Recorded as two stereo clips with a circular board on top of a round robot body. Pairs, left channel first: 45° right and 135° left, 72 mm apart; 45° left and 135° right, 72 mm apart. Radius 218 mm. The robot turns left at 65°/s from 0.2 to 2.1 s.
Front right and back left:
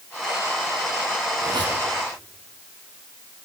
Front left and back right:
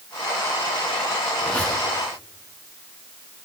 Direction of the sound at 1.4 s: 130° left.